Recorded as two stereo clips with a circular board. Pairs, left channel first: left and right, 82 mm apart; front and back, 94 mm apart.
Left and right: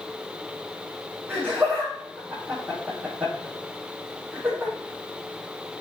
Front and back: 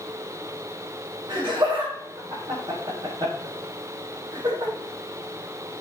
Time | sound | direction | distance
1.3 | laughter | 155° right | 5 m